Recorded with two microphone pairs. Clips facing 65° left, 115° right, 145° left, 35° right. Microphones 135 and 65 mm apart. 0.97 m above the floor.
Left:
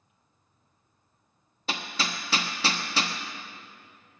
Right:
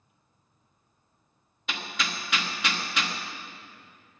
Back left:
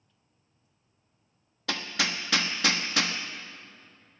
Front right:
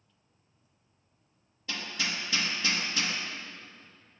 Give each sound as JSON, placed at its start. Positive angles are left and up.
{"t": 1.7, "sound": "hammering", "azimuth_deg": 125, "distance_m": 1.0}